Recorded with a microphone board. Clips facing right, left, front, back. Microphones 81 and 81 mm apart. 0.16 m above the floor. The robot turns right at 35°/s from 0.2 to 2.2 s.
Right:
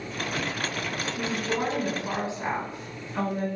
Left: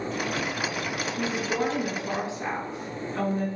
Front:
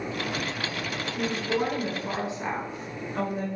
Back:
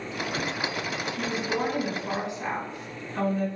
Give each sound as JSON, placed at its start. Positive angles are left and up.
{"t": 1.2, "sound": "a woman speaking", "azimuth_deg": -100, "distance_m": 1.4}